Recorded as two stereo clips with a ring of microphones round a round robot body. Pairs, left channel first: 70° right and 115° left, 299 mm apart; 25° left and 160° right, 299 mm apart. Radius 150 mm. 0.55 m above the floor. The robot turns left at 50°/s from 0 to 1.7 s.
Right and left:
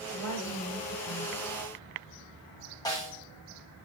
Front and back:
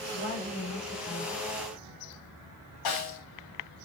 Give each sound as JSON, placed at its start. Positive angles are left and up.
{"t": 0.1, "sound": "a woman speaking", "azimuth_deg": 25, "distance_m": 7.0}
{"t": 2.9, "sound": "a snare drum", "azimuth_deg": 10, "distance_m": 5.0}